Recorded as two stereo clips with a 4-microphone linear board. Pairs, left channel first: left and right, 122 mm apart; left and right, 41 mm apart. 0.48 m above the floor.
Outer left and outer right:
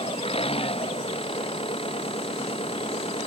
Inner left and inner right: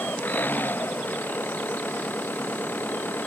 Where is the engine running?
50° left (ahead or behind).